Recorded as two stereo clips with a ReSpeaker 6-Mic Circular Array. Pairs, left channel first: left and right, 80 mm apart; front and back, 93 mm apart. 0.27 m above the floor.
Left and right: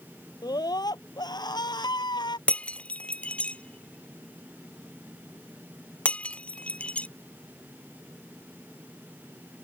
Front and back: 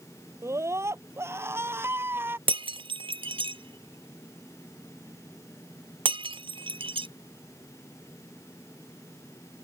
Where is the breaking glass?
165° left.